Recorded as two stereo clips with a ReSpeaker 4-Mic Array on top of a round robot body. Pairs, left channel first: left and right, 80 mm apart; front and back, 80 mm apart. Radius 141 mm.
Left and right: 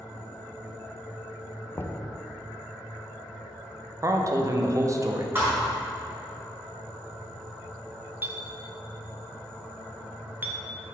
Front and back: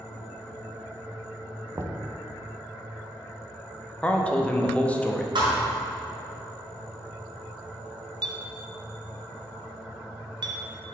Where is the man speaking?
65° right, 0.8 m.